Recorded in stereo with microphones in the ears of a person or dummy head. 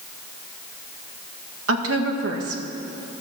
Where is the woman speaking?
75° right (ahead or behind), 1.6 m.